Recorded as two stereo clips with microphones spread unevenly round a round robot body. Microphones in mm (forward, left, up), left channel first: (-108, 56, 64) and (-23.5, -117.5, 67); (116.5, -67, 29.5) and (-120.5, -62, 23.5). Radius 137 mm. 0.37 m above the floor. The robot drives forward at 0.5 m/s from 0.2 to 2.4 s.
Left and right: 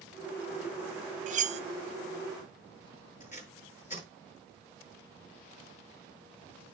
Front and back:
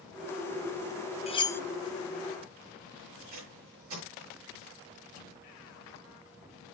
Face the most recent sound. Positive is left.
turn(degrees=165)